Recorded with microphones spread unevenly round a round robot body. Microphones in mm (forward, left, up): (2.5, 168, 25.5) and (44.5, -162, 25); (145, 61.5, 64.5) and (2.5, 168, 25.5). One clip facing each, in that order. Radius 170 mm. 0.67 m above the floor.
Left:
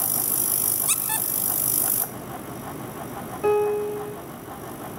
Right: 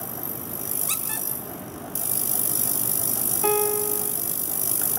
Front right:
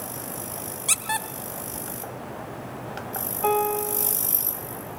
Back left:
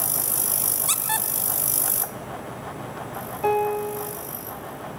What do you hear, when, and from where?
0.9 s a squeak: 25° left, 2.5 m
3.4 s a piano: 145° right, 1.4 m